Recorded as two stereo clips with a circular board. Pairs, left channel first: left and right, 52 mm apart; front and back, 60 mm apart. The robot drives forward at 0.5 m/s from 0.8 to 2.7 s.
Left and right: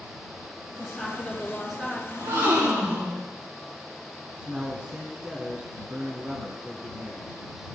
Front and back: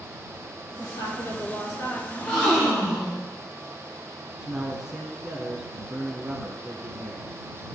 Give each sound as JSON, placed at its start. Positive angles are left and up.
{"t": 0.8, "sound": "a woman speaking", "azimuth_deg": -5, "distance_m": 3.0}
{"t": 2.1, "sound": "a gasp", "azimuth_deg": -80, "distance_m": 3.5}
{"t": 4.4, "sound": "a man speaking", "azimuth_deg": -115, "distance_m": 1.1}